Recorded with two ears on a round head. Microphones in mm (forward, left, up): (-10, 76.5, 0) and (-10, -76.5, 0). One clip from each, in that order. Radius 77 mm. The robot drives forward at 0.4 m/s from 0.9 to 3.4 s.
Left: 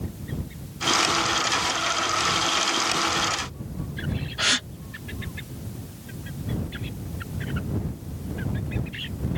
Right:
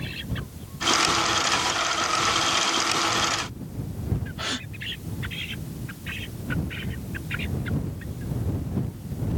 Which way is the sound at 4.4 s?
45° left (ahead or behind).